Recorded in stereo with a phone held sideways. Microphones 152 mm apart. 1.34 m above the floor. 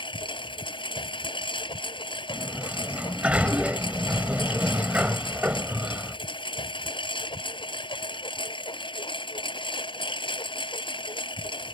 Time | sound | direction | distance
0.0 | a lawn mower | 35° left (ahead or behind) | ?
2.3 | a sliding door | 10° right (ahead or behind) | ?